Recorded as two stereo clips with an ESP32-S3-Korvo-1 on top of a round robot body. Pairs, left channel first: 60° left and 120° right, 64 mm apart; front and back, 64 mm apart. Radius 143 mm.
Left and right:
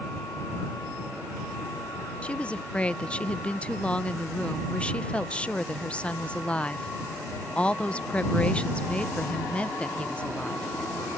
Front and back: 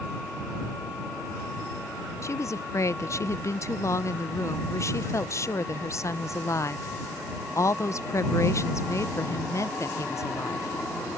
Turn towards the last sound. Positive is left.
turn(degrees=-5)